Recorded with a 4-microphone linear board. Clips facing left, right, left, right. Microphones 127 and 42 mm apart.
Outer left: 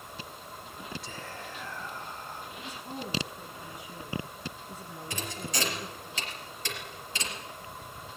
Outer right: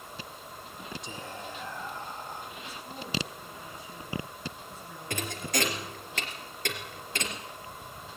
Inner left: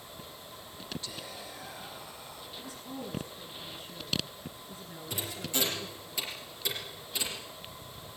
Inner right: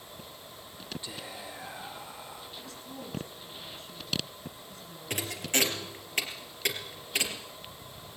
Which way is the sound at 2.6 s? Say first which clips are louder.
Outer left 2 dB, inner left 2 dB; 15° left (ahead or behind).